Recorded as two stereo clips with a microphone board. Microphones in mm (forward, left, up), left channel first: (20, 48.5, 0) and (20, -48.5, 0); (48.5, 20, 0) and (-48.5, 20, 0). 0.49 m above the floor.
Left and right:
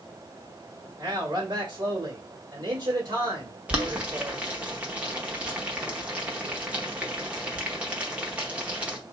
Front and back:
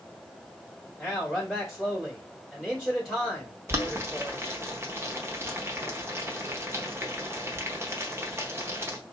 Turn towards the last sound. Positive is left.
turn(degrees=-150)